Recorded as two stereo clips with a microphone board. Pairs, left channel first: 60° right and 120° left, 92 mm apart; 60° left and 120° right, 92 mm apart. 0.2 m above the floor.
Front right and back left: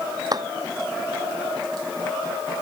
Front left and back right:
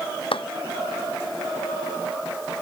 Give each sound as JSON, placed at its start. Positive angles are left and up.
{"t": 0.3, "sound": "a clap", "azimuth_deg": 75}